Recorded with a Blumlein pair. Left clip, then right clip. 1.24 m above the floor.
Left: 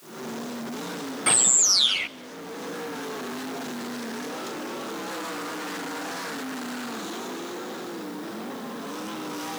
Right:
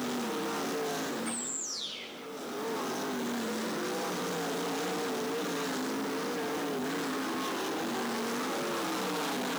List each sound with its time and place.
1.3 s a bird: 50° left, 0.6 m